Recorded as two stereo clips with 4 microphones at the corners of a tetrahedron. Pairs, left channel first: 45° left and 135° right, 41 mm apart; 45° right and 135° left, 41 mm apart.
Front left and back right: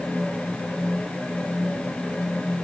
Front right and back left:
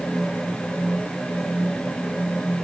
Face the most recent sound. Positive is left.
No sound to turn to.